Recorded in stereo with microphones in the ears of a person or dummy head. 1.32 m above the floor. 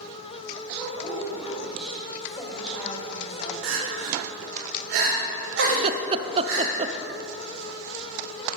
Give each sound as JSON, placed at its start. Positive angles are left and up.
{"t": 0.8, "sound": "a woman speaking", "side_deg": 5, "distance_m": 7.0}
{"t": 3.6, "sound": "crying", "side_deg": -70, "distance_m": 4.5}
{"t": 5.7, "sound": "laughter", "side_deg": -35, "distance_m": 0.7}